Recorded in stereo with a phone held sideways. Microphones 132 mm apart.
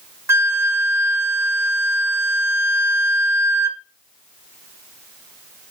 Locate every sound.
0.3 s a flute: 20° right (ahead or behind), 0.7 m